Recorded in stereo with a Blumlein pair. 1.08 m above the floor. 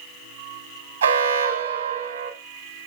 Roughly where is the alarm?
Right.